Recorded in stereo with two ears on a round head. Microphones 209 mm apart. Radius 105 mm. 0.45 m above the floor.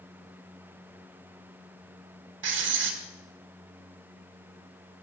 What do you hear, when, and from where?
2.4 s writing: 50° right (ahead or behind), 2.0 m